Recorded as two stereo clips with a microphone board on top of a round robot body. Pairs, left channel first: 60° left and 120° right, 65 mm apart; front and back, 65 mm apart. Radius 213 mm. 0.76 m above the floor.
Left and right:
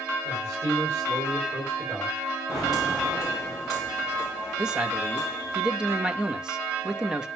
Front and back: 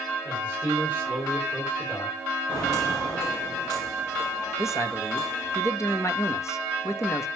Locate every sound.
0.2 s a man speaking: 65° right, 7 m
2.5 s footsteps: 35° right, 4 m; by 5.6 s 15° right, 3 m
4.6 s a man speaking: 45° right, 1.2 m